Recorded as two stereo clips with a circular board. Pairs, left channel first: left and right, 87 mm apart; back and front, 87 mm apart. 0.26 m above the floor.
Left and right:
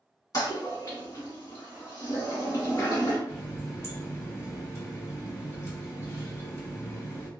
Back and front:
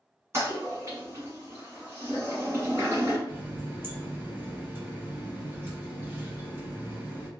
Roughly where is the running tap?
Ahead left.